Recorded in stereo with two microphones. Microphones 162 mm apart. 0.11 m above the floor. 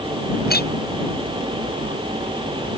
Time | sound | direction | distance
0.5 | a clink | 75° left (ahead or behind) | ?